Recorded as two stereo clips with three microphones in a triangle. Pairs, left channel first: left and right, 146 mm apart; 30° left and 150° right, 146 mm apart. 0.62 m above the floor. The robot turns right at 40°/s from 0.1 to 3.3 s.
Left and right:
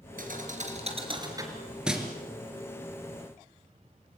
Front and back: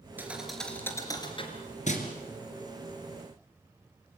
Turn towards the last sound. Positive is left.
turn(degrees=50)